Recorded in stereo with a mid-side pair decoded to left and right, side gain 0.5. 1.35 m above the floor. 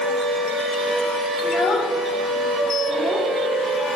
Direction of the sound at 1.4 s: 55° left.